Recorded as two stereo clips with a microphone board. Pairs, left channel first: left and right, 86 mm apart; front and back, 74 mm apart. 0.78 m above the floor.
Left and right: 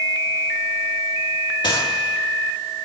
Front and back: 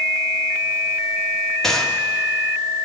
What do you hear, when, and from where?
1.6 s a gunshot: 85° left, 1.8 m